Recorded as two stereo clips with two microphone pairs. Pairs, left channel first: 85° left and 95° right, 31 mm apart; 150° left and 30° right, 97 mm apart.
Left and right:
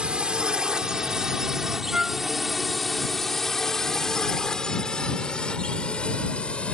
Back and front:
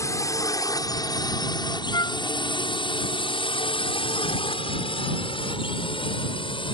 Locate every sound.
0.0 s a drone: 155° right; by 6.7 s 130° left
1.9 s a flute: 165° right